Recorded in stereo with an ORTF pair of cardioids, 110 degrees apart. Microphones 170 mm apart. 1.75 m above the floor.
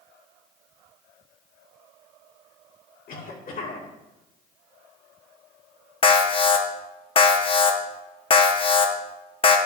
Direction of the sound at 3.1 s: 55° left.